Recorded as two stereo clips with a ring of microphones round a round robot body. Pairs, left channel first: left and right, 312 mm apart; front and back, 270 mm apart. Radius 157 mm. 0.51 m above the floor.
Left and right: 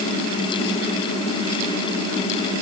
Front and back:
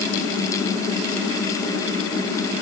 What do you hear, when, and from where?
Only background noise.